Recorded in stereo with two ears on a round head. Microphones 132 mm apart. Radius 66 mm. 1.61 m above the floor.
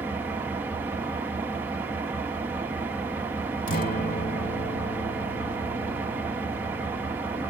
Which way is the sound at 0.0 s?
15° right (ahead or behind).